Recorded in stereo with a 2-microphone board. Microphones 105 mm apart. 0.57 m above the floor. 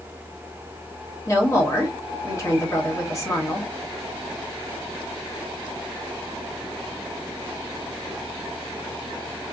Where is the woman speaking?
30° left (ahead or behind), 1.0 m.